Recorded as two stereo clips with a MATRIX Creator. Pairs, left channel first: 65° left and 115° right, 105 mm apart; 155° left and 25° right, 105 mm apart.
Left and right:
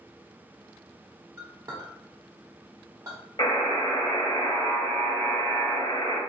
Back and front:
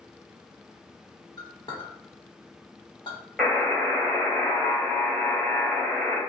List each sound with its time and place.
1.4 s a clink: 165° right, 1.3 m
3.4 s a buzzer: 80° left, 1.4 m